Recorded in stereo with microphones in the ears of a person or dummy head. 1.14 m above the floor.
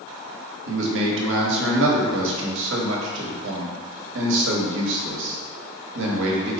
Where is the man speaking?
70° right (ahead or behind), 1.1 m.